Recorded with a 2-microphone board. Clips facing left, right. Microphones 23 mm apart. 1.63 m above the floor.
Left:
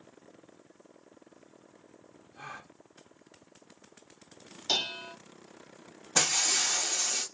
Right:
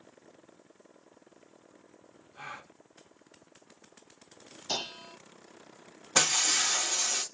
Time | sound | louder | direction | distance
2.4 | a gasp | right 1 dB | 30° right (ahead or behind) | 0.9 m
4.7 | dishes clattering | left 5 dB | 35° left (ahead or behind) | 0.8 m
6.2 | breaking glass | right 1 dB | 35° right (ahead or behind) | 2.5 m